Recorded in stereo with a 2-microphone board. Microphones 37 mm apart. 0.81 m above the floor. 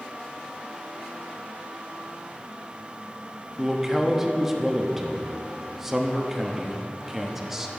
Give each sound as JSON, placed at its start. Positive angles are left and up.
{"t": 3.6, "sound": "a man speaking", "side_deg": -10, "distance_m": 0.8}